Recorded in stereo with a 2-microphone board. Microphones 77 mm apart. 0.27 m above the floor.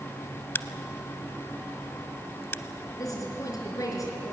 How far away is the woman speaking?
About 3.5 m.